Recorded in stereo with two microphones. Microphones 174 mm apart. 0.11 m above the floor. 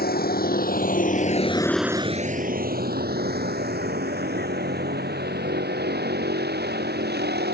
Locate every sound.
0.0 s a vehicle: 65° left (ahead or behind); by 7.5 s 70° right (ahead or behind)